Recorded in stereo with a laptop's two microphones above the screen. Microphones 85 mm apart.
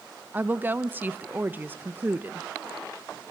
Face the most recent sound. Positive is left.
turn(degrees=-20)  # may be behind; listen again after turning